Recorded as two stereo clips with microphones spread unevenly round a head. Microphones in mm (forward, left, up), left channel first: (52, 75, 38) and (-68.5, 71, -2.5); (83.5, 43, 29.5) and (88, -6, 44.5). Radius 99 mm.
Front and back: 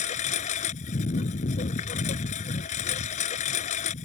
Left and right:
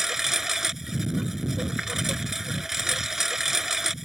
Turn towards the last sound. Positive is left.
turn(degrees=-10)